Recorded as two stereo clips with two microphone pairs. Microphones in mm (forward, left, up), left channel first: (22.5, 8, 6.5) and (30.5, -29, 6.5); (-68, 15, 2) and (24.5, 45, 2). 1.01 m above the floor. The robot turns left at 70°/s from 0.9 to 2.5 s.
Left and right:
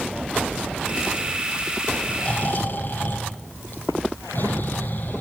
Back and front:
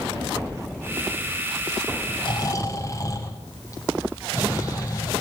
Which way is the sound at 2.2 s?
160° left.